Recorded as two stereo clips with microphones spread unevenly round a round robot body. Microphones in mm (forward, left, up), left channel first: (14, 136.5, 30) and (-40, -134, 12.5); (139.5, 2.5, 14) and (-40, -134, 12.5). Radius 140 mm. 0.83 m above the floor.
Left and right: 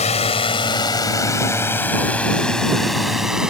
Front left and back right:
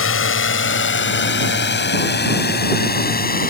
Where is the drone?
10° left; by 3.5 s 15° right.